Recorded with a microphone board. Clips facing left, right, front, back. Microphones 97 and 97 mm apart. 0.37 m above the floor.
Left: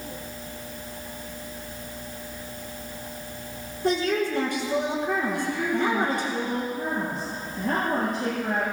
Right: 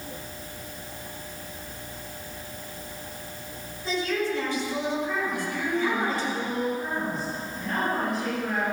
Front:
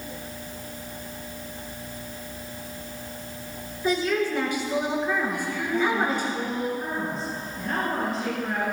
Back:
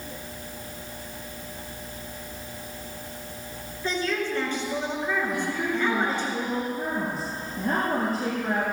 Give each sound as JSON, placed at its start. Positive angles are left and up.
{"t": 3.8, "sound": "a woman speaking", "azimuth_deg": 75, "distance_m": 6.0}
{"t": 5.3, "sound": "a woman speaking", "azimuth_deg": 135, "distance_m": 7.5}